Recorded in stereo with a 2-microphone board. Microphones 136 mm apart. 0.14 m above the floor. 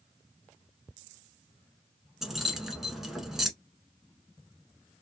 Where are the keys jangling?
Centre (ahead or behind), 0.9 m.